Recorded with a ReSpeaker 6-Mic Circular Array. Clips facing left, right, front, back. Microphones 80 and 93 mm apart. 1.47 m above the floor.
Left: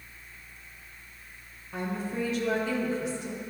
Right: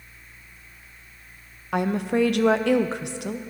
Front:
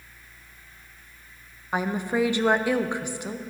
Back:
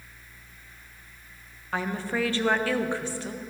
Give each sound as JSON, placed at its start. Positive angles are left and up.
{"t": 1.7, "sound": "a woman speaking", "azimuth_deg": -75, "distance_m": 0.5}